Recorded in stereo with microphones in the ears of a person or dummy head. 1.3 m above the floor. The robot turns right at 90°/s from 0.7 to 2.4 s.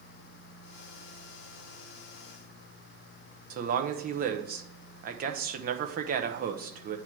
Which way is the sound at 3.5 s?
55° right (ahead or behind).